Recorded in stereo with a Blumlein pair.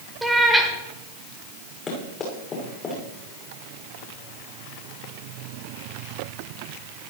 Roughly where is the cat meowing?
Ahead.